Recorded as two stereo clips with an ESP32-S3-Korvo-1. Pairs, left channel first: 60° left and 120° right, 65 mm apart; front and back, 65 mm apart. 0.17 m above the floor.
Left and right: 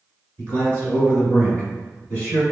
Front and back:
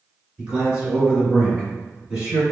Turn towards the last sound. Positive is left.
turn(degrees=110)